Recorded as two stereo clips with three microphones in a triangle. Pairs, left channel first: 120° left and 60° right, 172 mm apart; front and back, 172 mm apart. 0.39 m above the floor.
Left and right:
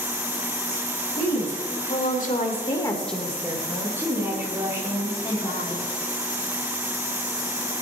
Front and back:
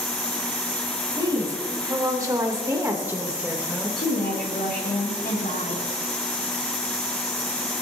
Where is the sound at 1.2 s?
115° left, 3.5 m; by 4.0 s 85° right, 1.9 m.